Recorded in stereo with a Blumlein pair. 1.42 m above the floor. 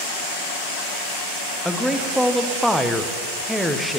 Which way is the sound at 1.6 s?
Straight ahead.